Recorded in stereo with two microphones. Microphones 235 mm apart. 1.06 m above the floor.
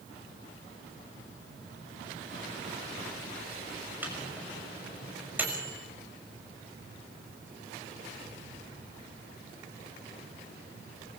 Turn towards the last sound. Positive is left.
turn(degrees=-5)  # may be behind; listen again after turning